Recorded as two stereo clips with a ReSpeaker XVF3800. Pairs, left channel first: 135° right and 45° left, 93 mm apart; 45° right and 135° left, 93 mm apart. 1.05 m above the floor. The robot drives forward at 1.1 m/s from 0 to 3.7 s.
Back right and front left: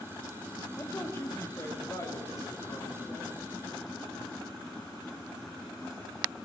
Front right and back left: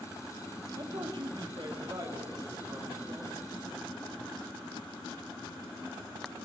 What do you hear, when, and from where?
0.8 s a man speaking: 165° left, 1.4 m; by 3.4 s 175° left, 4 m